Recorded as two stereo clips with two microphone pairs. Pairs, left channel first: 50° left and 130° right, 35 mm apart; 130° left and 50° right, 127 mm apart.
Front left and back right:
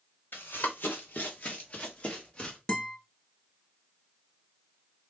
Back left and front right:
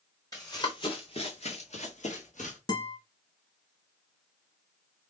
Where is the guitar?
100° left, 0.8 m.